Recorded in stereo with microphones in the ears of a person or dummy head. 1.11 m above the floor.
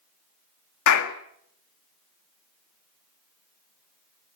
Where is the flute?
I don't hear a flute.